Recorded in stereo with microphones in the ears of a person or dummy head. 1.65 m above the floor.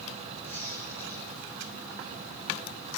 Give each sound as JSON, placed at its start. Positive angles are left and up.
{"t": 0.4, "sound": "a squeak", "side_deg": 15, "distance_m": 10.0}